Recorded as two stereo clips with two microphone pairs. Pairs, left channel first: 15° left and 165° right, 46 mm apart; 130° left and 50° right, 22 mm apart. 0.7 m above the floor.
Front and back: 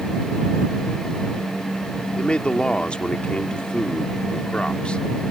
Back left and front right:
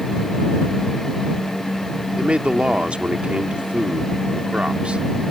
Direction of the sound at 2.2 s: 50° right.